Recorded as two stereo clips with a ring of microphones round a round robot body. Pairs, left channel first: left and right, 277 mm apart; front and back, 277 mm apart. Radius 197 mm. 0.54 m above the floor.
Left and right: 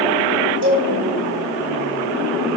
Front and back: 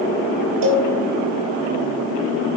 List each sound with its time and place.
0.6 s a cowbell: 145° right, 2.5 m